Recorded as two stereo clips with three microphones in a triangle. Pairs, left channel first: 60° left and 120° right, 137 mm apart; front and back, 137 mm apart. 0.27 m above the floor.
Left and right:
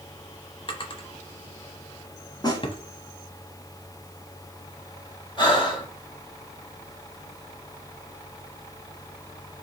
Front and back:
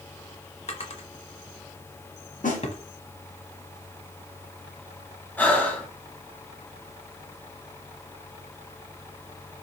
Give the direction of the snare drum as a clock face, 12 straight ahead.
12 o'clock.